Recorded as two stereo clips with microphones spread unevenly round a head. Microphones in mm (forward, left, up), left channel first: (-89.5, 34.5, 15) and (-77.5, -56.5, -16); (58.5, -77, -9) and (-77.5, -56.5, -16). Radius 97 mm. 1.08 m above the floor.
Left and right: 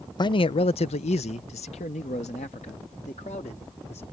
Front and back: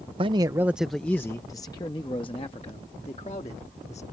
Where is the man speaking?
140° left; by 4.0 s 50° left.